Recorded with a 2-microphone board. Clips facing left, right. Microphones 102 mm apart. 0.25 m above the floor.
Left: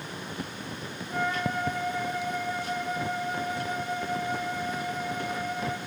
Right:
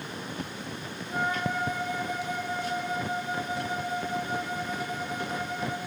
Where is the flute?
15° right (ahead or behind), 1.3 m.